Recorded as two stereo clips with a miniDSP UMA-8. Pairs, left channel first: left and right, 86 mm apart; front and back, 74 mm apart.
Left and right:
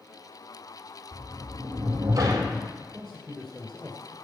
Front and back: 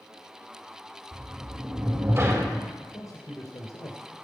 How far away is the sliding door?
About 4 m.